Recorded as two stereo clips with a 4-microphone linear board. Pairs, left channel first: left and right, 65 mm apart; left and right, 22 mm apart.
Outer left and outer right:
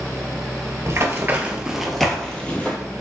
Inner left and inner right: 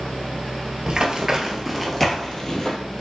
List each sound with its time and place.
0.9 s running footsteps: 45° right (ahead or behind), 0.7 m; by 2.8 s 25° left (ahead or behind), 1.0 m